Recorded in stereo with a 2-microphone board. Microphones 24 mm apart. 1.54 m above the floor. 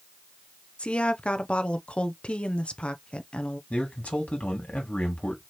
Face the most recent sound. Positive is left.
turn(degrees=80)